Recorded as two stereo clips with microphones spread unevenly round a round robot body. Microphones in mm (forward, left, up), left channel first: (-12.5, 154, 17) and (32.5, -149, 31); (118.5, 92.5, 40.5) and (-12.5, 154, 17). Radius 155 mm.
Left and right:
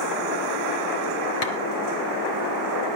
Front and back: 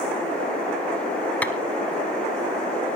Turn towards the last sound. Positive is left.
turn(degrees=55)